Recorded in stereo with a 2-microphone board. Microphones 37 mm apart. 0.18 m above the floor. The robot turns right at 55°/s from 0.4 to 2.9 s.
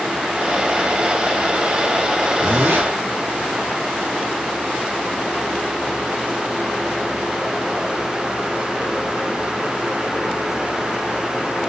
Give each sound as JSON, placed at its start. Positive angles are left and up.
{"t": 2.4, "sound": "a zipper", "side_deg": -50, "distance_m": 9.0}